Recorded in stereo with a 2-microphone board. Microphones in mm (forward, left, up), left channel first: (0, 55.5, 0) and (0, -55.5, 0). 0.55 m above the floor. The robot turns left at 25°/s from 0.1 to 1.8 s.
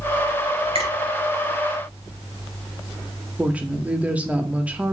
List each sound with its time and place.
0.8 s a finger snap: 70° right (ahead or behind), 3 m
3.4 s a woman speaking: 10° right (ahead or behind), 0.6 m